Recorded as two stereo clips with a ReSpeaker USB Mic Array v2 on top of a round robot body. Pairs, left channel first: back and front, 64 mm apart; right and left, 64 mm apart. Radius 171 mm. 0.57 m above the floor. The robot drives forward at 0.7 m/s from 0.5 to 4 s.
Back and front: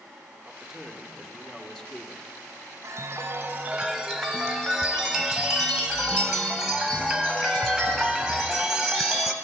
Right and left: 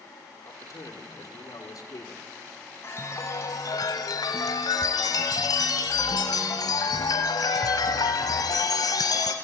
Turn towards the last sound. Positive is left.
turn(degrees=-90)